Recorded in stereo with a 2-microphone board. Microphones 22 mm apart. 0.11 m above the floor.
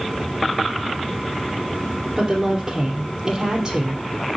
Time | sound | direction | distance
2.2 | a woman speaking | 45° right (ahead or behind) | 2.5 m